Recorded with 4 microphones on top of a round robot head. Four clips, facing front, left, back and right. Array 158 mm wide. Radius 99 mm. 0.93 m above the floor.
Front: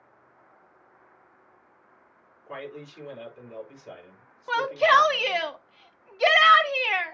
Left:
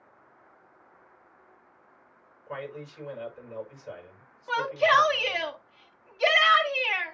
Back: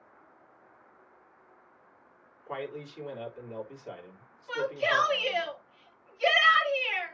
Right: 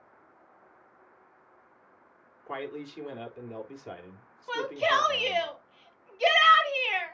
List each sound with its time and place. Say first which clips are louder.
2.5 s a man speaking: right 1 dB, back 1 dB; 85° right, 4 m
4.5 s a shout: left 4 dB, front 8 dB; 10° right, 1.9 m